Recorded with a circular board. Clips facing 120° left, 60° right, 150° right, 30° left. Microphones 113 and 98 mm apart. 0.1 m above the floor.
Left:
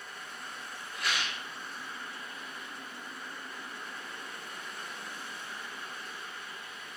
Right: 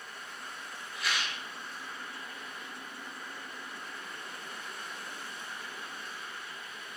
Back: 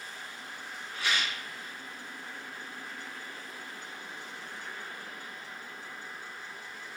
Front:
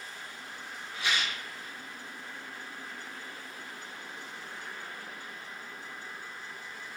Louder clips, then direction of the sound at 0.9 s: Even, even; 95° left.